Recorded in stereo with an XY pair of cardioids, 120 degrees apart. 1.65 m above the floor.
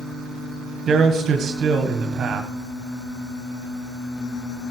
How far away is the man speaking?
About 1.4 m.